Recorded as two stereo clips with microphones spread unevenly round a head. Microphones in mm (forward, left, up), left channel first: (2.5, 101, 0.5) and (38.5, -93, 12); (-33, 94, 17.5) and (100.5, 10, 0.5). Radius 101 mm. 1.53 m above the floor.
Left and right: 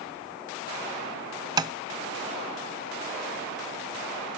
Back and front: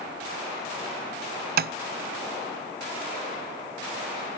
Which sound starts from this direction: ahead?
Tapping, at 1.6 s.